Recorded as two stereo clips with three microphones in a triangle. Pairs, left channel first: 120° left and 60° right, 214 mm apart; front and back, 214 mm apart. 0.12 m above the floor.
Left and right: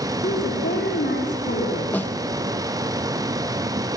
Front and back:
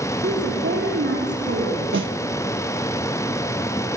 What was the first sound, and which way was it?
A woman speaking, 155° left.